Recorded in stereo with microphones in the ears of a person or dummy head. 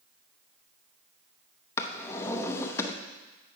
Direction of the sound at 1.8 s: 15° left (ahead or behind).